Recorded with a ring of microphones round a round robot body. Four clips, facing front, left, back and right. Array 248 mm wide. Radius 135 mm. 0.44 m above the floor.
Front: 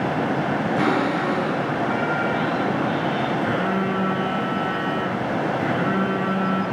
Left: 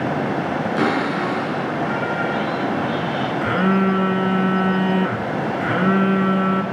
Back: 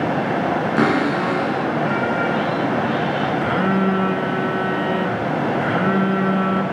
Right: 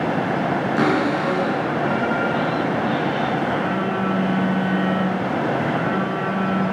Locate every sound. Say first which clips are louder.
0.8 s a cupboard door: right 1 dB, back 3 dB; 170° right, 6 m
3.4 s a phone buzzing: left 3 dB, back 4 dB; 125° left, 1.5 m